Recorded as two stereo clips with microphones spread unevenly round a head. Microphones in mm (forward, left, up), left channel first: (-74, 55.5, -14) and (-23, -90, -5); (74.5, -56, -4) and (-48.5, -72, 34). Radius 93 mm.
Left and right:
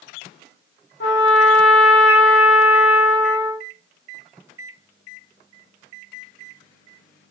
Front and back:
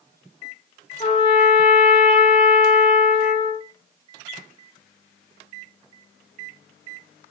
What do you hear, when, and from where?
1.0 s a trumpet: 70° left, 2.5 m